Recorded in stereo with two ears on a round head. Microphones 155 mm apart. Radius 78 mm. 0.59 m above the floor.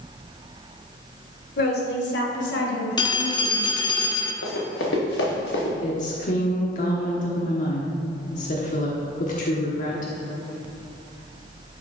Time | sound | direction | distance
1.6 | a woman speaking | 55° left (ahead or behind) | 1.7 m
3.0 | a phone ringing | 25° left (ahead or behind) | 0.7 m
4.4 | running footsteps | 70° left (ahead or behind) | 2.5 m
5.8 | a woman speaking | 45° left (ahead or behind) | 1.2 m